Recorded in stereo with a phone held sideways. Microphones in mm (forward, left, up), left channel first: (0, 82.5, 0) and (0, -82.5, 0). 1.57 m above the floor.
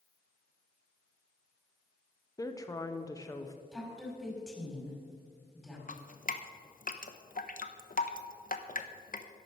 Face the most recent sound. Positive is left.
turn(degrees=60)  # may be behind; listen again after turning